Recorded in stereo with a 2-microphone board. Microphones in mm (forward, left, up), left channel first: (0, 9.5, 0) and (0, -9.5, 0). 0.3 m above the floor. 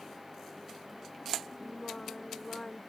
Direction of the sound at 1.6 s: 40° left (ahead or behind).